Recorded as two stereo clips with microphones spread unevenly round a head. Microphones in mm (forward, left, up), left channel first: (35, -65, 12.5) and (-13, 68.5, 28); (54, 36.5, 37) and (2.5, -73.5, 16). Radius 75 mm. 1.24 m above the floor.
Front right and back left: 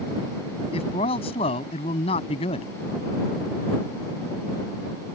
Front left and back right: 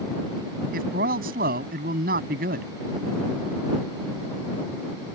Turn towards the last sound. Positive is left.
turn(degrees=-125)